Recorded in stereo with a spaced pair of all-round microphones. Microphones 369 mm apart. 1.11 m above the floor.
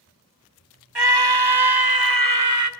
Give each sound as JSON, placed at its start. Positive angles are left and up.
{"t": 0.9, "sound": "a scream", "side_deg": -85, "distance_m": 1.8}